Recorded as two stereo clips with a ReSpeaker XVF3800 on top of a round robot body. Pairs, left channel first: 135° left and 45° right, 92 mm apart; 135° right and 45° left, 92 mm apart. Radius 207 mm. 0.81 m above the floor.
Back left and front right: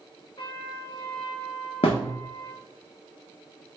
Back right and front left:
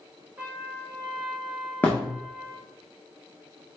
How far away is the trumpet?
About 1.5 m.